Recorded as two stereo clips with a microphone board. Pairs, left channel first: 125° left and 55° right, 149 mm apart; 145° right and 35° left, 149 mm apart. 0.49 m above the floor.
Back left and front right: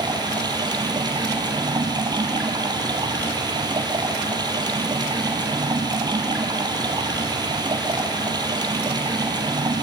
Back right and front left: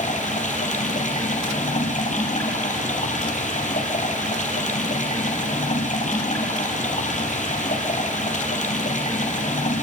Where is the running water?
115° right, 3 m.